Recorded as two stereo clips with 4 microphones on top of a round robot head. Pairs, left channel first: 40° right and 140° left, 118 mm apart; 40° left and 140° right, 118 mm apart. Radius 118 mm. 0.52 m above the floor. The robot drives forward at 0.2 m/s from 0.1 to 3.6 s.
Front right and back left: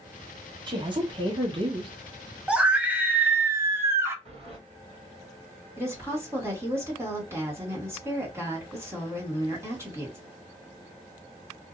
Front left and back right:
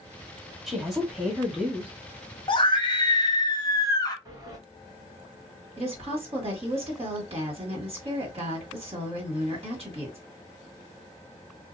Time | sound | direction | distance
0.7 | a woman speaking | 130° left | 1.4 m
2.5 | a scream | 65° left | 1.1 m
4.2 | a sliding door | 165° left | 2 m
5.8 | a woman speaking | 155° right | 1.9 m